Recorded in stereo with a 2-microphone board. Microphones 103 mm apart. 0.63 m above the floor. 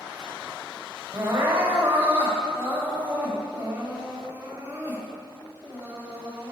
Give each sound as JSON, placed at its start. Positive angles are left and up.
{"t": 1.1, "sound": "crying", "side_deg": -20, "distance_m": 4.0}